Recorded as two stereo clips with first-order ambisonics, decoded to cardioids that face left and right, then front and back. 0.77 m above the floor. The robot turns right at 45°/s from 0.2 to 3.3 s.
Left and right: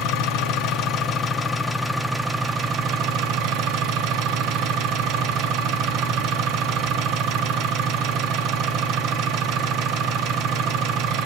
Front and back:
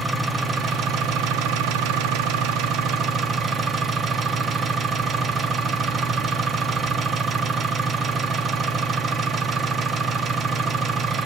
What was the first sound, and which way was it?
An engine running, 100° left.